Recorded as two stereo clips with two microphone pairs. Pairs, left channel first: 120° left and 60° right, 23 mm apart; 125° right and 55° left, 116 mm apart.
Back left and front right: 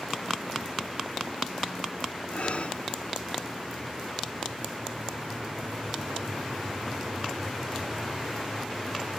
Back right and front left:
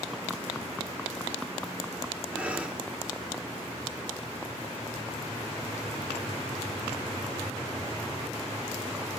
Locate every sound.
2.3 s breathing: 135° left, 1.1 m